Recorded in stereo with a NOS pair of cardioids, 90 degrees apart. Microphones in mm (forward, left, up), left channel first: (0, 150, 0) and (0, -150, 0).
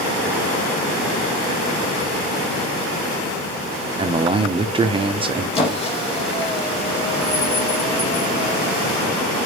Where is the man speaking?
20° right, 0.7 m.